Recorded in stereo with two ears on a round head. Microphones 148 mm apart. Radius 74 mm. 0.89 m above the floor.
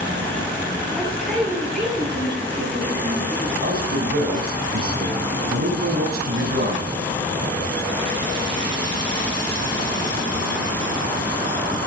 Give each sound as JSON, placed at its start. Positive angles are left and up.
{"t": 0.9, "sound": "a man speaking", "side_deg": 0, "distance_m": 9.5}
{"t": 3.6, "sound": "a man speaking", "side_deg": -60, "distance_m": 5.5}